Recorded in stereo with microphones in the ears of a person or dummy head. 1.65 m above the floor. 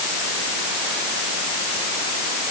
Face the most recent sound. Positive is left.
No sound to turn to.